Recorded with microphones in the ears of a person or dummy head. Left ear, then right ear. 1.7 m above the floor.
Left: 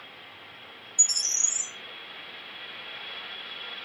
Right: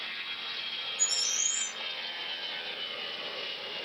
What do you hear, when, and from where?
1.0 s a bird: 40° left (ahead or behind), 1.9 m